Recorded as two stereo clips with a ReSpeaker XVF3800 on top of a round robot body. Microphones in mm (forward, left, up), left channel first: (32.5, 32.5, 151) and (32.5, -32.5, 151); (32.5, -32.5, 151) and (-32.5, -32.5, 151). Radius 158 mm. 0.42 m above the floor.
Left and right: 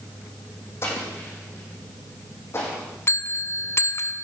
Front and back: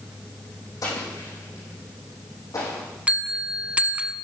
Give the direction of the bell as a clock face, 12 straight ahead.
8 o'clock.